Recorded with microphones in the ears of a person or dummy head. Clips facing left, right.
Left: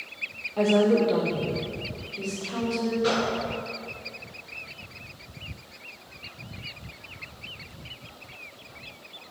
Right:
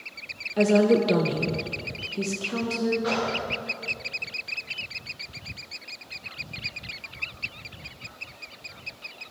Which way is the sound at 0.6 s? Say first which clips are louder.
Right 1 dB; 20° right (ahead or behind).